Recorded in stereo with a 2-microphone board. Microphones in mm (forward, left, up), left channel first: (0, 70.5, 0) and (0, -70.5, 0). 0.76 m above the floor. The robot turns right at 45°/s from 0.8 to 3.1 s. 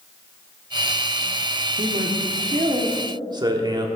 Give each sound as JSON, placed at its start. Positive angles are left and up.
{"t": 1.8, "sound": "a man speaking", "azimuth_deg": -90, "distance_m": 1.4}